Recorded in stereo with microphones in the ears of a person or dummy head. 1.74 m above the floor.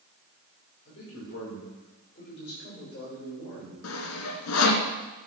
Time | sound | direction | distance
0.8 | a man speaking | 35° left (ahead or behind) | 5 m
3.8 | sawing | 75° left (ahead or behind) | 1.3 m